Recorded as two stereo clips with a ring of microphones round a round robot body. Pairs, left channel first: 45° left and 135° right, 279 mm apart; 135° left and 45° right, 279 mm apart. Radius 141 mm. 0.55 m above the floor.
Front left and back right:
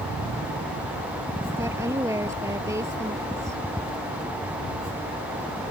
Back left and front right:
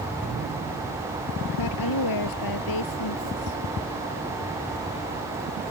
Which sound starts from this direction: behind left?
A woman speaking, at 1.5 s.